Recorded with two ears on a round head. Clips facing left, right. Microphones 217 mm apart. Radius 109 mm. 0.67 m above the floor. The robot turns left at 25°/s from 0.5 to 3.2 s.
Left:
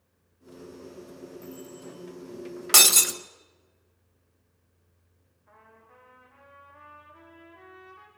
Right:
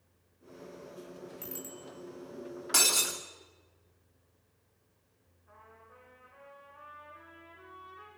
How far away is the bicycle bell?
About 9 m.